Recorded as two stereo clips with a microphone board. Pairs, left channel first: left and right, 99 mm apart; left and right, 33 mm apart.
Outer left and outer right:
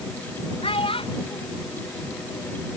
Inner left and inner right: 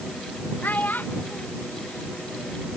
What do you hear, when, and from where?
0.6 s a child speaking: 65° left (ahead or behind)